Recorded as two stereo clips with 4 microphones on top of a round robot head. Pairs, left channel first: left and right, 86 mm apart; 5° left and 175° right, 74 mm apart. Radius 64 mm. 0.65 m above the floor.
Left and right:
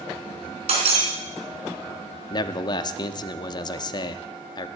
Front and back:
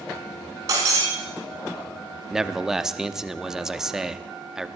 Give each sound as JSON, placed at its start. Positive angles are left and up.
{"t": 0.7, "sound": "breaking glass", "azimuth_deg": -115, "distance_m": 4.0}
{"t": 2.3, "sound": "a man speaking", "azimuth_deg": 100, "distance_m": 0.9}